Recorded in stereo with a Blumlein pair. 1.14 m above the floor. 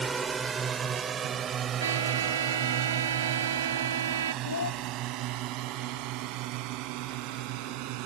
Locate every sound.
0.0 s a drone: 15° right; by 8.1 s 40° right
1.8 s a trumpet: 65° right
4.4 s a child speaking: 70° left